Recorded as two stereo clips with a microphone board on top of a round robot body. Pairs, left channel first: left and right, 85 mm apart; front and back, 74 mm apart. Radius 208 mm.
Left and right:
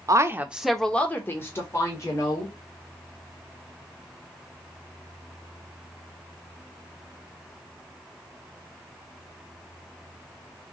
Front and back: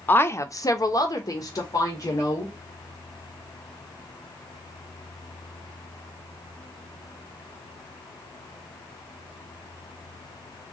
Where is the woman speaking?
60° right, 0.8 m; by 2.5 s 40° left, 2 m.